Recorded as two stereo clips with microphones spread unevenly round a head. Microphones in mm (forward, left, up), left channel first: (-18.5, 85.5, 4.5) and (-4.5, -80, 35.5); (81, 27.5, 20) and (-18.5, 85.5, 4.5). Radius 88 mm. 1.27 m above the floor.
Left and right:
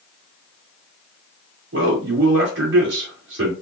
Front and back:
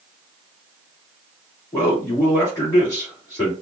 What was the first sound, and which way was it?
A man speaking, 105° right.